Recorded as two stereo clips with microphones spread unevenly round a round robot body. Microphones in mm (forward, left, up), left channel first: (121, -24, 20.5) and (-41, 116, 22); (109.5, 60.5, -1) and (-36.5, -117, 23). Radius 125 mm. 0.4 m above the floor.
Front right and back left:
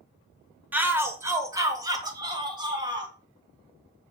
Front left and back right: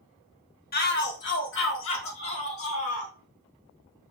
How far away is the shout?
About 1.0 m.